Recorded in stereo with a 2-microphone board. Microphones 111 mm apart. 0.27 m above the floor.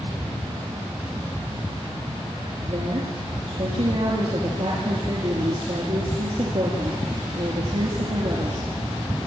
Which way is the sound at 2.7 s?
60° right (ahead or behind).